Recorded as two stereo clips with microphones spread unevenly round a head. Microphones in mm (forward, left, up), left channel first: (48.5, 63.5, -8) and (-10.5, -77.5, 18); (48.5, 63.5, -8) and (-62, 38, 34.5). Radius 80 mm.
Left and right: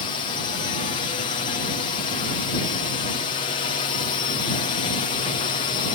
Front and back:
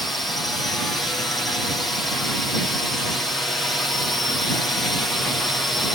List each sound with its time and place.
0.0 s a drone: 75° left